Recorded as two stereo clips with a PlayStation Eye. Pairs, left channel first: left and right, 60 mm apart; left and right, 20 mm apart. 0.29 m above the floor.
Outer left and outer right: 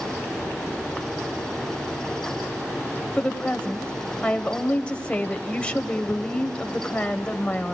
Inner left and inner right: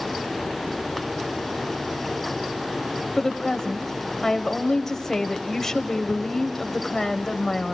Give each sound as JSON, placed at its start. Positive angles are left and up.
{"t": 3.2, "sound": "a woman speaking", "side_deg": 20, "distance_m": 1.0}